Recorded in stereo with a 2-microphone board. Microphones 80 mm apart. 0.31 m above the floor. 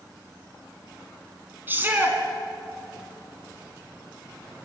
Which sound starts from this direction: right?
A shout, at 1.7 s.